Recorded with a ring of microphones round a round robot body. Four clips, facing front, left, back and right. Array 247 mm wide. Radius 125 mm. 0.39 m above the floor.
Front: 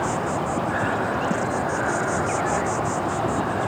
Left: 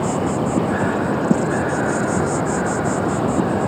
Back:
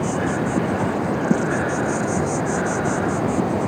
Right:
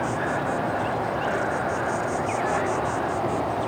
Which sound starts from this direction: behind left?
An insect, at 0.0 s.